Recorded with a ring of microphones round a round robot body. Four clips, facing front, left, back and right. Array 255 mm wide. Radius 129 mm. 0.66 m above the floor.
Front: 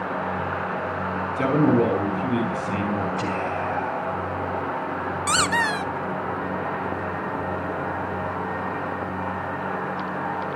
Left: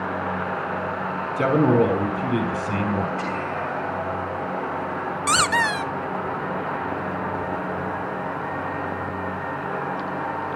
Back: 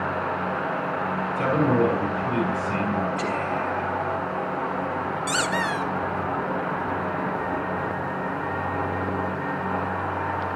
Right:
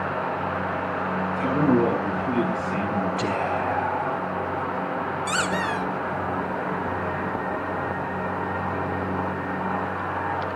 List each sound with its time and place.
1.4 s a man speaking: 60° left, 6.5 m
3.2 s whispering: 65° right, 3.5 m
5.3 s a squeak: 60° left, 0.7 m